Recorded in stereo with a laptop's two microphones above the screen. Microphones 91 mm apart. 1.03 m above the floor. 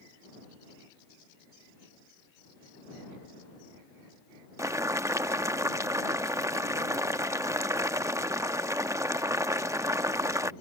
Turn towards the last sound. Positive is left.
turn(degrees=-35)  # may be behind; listen again after turning